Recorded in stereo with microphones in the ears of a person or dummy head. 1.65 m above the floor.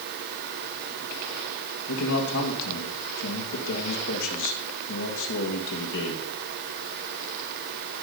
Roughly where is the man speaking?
Left.